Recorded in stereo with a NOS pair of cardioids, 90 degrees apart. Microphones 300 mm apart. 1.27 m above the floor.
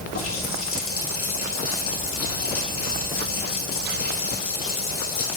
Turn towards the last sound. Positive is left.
turn(degrees=45)